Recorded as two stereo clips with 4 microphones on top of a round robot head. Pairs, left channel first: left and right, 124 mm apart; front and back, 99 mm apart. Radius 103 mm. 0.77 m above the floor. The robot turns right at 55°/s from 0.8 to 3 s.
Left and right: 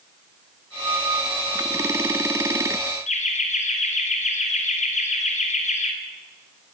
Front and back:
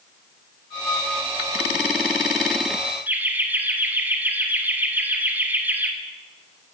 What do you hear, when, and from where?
3.1 s laughter: 105° left, 2.5 m